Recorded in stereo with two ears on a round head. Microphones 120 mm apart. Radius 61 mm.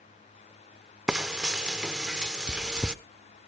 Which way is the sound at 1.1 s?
5° right (ahead or behind).